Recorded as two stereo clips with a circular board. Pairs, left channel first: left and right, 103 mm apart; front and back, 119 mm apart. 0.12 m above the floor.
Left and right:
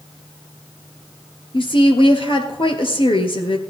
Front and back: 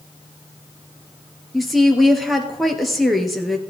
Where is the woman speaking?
90° left, 2.0 m.